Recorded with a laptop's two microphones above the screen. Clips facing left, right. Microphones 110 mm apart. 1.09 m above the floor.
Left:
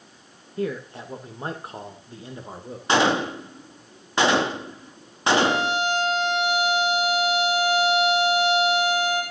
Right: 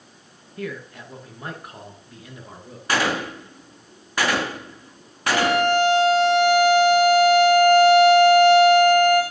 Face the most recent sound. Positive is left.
turn(degrees=-55)  # may be behind; listen again after turning